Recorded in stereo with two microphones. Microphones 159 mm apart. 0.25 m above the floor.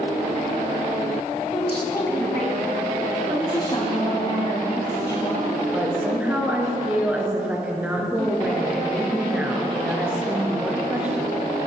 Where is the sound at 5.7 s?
10° right (ahead or behind), 3 m.